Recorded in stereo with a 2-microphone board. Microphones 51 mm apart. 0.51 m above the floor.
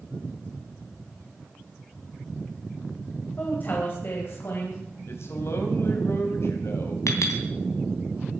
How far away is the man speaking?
About 3 m.